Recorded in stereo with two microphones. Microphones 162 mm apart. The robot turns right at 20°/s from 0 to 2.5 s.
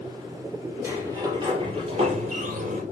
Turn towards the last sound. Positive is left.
turn(degrees=-125)